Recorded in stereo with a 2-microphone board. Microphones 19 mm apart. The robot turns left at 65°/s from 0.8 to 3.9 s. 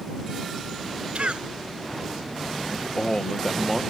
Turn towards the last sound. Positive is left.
turn(degrees=-10)